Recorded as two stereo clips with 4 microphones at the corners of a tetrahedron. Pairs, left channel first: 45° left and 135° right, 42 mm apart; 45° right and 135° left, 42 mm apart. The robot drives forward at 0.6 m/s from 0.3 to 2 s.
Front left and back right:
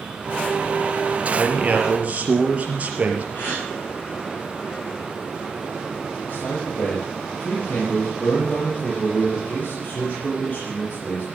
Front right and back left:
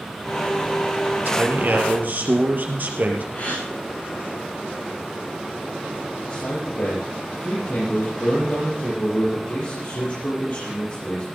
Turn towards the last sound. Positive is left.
turn(degrees=-5)